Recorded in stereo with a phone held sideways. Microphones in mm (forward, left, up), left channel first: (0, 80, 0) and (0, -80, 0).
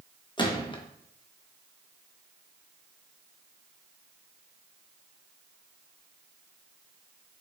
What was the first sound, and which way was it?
A gunshot, 30° left (ahead or behind).